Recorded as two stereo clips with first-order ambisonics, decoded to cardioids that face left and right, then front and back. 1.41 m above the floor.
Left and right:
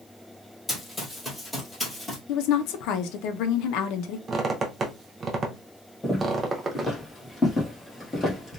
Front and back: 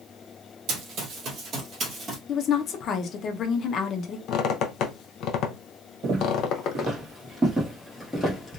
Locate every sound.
0.7 s running footsteps: 165° left, 1.9 m; by 2.2 s 170° left, 1.4 m
2.3 s a woman speaking: 60° left, 0.6 m
4.3 s a squeak: 25° right, 0.6 m
6.0 s footsteps: 165° left, 1.9 m; by 8.6 s 20° left, 1.4 m